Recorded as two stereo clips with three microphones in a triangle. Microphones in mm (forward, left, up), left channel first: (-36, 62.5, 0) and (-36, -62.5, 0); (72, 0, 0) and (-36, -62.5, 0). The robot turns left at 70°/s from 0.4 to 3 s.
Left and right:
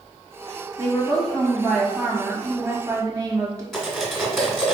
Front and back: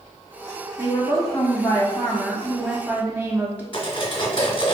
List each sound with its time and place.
0.8 s a woman speaking: 60° left, 1.0 m; by 3.6 s 95° right, 1.0 m
3.7 s cutlery clinking: straight ahead, 1.3 m